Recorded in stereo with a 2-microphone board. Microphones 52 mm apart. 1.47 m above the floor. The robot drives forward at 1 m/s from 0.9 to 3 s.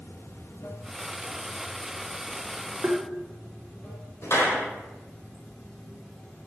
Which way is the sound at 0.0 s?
50° left (ahead or behind).